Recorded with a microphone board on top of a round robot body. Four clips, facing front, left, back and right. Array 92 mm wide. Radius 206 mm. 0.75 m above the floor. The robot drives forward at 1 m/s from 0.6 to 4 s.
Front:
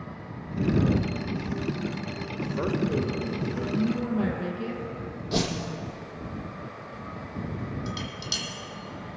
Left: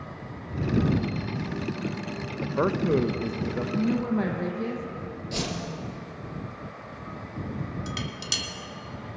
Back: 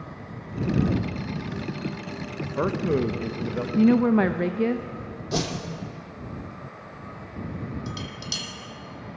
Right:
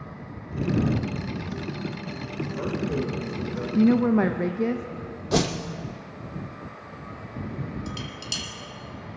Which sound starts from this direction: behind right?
A woman speaking, at 3.8 s.